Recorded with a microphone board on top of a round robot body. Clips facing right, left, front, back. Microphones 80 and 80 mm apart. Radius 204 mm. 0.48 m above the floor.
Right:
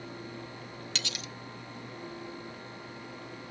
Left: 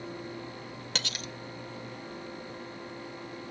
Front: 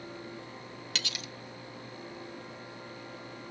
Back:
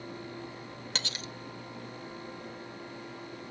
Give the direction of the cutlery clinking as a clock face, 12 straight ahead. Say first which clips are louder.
Left 4 dB, back 1 dB; 8 o'clock.